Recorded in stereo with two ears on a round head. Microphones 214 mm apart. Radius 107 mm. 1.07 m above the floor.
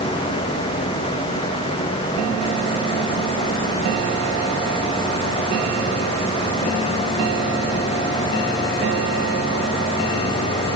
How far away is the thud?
No thud in this recording.